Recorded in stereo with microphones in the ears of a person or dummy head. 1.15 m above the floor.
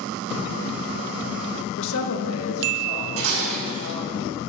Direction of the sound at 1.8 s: 60° left (ahead or behind).